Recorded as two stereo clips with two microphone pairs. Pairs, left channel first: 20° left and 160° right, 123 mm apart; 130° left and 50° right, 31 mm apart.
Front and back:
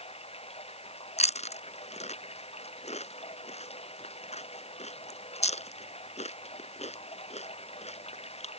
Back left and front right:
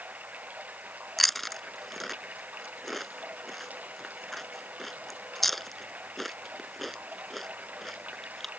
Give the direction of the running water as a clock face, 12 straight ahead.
1 o'clock.